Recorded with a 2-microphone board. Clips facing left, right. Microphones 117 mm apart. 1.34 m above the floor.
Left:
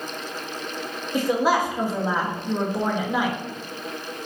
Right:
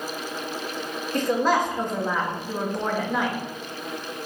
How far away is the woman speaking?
About 1.5 m.